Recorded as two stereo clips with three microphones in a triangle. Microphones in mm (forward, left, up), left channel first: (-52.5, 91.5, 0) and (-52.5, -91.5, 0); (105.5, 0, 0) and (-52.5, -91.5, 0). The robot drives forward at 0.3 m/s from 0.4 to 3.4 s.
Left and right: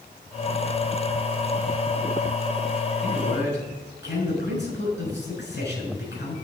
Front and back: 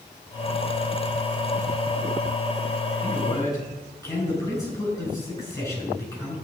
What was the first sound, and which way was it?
A man speaking, 100° left.